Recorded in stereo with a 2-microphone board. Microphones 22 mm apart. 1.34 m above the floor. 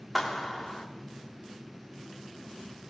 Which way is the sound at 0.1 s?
5° right (ahead or behind).